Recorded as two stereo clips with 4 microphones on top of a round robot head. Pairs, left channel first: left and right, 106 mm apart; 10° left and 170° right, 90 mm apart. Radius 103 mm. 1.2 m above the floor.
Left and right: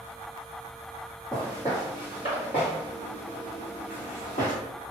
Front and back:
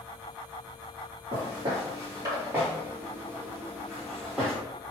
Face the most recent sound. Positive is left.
turn(degrees=100)